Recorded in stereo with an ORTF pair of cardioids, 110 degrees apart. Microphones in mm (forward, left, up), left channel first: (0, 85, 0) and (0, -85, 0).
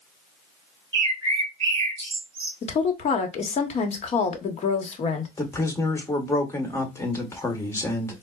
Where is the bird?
30° right, 1.8 m.